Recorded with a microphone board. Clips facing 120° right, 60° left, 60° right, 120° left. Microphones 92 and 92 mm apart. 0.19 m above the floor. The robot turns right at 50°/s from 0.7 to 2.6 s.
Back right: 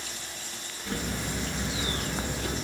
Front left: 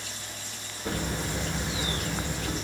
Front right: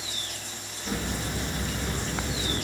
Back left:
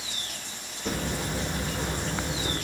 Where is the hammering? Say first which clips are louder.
Front left 2 dB, back left 1 dB; 100° left, 9 m; by 2.5 s 175° right, 9 m.